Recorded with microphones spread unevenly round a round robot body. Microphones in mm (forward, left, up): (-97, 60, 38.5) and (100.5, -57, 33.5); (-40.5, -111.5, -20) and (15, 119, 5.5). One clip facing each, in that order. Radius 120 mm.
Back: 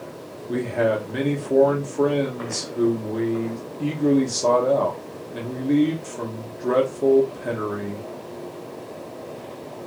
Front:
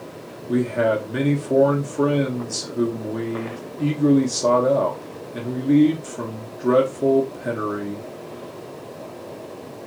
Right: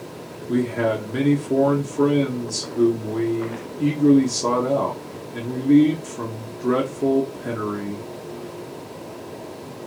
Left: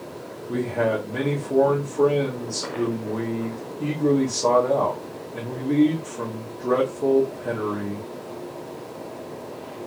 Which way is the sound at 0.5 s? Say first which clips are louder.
Front 2 dB, right 3 dB; 100° right.